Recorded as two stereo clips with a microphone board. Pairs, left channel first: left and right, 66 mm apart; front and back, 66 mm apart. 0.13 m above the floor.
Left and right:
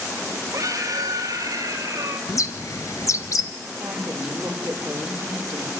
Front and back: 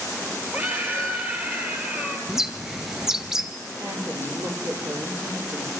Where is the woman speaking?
160° right, 4 m.